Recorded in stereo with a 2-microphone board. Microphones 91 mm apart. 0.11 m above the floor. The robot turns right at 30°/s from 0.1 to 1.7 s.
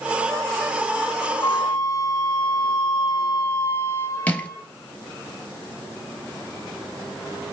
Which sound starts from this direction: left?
A flute, at 1.4 s.